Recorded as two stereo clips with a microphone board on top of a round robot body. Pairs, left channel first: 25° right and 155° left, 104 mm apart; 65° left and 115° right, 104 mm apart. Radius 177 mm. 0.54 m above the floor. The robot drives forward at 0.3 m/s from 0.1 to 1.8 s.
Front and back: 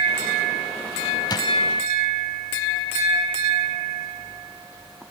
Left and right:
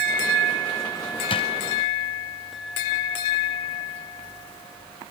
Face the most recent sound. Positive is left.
turn(degrees=30)